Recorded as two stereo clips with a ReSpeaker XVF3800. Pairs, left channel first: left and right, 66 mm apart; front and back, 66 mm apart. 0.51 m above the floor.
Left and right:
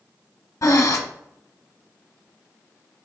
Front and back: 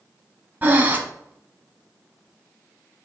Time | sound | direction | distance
0.6 | breathing | 120° left | 1.0 m